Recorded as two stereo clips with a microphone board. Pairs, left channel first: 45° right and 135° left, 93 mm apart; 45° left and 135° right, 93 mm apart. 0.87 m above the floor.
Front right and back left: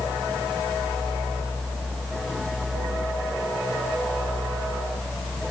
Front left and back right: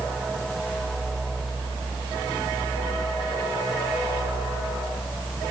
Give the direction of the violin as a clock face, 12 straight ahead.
I don't hear a violin.